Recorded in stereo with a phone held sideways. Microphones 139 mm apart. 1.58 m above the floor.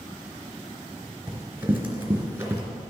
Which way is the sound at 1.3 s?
15° right (ahead or behind).